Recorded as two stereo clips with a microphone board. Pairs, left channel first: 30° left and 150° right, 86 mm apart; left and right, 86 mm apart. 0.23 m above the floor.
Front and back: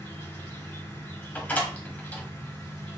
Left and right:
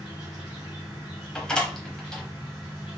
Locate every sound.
0.0 s an insect: 15° right, 2 m
1.4 s a door slam: 35° left, 0.8 m